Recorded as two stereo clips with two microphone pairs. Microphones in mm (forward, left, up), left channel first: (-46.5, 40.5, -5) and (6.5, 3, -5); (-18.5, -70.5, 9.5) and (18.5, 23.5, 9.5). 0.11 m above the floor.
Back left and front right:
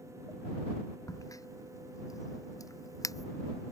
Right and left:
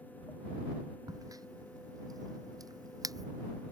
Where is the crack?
120° left.